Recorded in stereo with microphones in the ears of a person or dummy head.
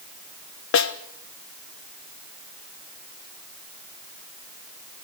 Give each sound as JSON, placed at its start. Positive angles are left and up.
{"t": 0.7, "sound": "a snare drum", "side_deg": 60, "distance_m": 1.1}